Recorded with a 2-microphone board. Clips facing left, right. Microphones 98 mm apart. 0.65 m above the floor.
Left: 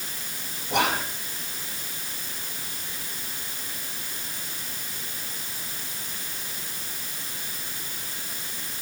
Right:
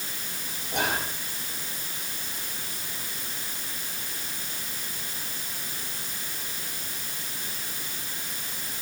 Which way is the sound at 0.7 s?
80° left.